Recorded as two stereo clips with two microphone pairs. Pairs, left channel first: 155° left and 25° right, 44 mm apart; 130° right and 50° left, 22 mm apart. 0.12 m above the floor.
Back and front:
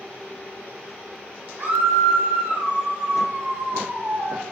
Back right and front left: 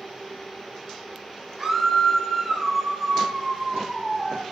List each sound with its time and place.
1.6 s a scream: 45° right, 3.5 m